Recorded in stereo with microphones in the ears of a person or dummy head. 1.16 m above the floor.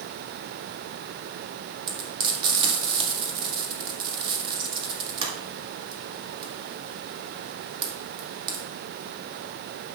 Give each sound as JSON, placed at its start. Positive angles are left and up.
{"t": 1.9, "sound": "frying", "side_deg": -25, "distance_m": 1.8}